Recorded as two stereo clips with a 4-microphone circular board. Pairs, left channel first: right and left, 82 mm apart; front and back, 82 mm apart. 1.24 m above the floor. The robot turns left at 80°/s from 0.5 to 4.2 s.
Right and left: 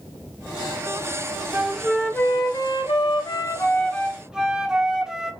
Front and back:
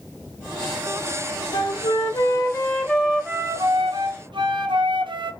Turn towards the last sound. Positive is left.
turn(degrees=170)